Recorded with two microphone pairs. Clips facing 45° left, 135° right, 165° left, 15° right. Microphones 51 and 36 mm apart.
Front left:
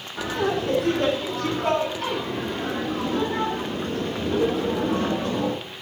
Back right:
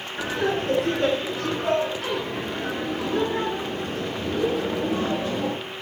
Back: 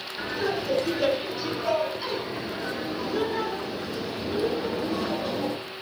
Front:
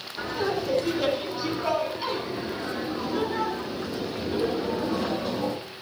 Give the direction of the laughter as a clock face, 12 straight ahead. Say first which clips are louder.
Front left 1 dB, front 1 dB; 10 o'clock.